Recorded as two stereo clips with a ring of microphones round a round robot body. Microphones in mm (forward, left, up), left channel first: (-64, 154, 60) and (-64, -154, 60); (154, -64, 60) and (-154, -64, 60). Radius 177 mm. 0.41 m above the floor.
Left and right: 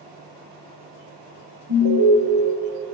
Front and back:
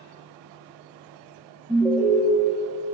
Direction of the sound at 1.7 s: 100° right.